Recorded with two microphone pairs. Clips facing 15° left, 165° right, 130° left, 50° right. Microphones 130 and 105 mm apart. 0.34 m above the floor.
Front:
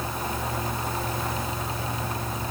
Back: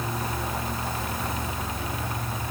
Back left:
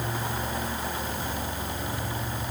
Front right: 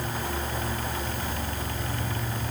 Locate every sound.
Only background noise.